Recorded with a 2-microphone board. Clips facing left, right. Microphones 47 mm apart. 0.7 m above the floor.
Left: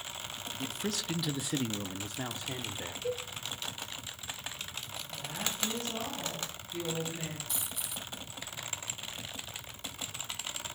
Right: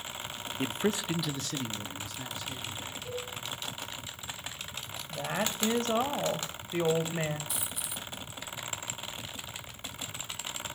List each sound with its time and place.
0.6 s a man speaking: 45° right (ahead or behind), 0.8 m; by 2.9 s 55° left (ahead or behind), 1.9 m
3.0 s a cowbell: 60° left (ahead or behind), 9.5 m
5.1 s a woman speaking: 70° right (ahead or behind), 2.5 m
7.5 s a dropped coin: centre (ahead or behind), 0.9 m